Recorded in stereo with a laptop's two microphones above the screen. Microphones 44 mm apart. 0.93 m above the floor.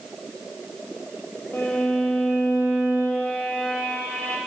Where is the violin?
40° left (ahead or behind), 1.2 m.